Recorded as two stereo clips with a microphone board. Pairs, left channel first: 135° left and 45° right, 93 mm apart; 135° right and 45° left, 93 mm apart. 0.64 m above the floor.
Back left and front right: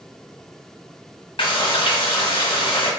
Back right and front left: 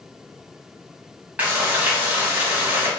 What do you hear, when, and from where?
1.4 s frying: 120° left, 1.7 m